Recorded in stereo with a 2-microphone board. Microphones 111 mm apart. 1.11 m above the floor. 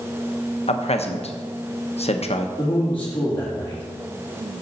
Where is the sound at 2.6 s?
15° left (ahead or behind), 2.5 m.